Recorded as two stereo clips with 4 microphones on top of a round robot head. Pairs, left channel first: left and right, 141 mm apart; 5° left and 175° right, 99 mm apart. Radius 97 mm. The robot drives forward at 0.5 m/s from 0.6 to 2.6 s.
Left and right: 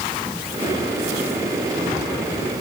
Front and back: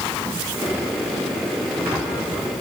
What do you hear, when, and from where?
Only background noise.